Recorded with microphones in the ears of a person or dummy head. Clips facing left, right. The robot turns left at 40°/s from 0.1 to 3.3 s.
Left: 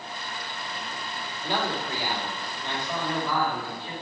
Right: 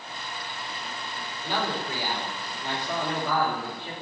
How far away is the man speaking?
About 3.5 m.